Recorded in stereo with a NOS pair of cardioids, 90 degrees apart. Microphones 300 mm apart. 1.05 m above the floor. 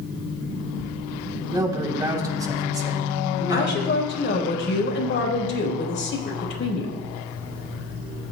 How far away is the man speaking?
About 3.5 m.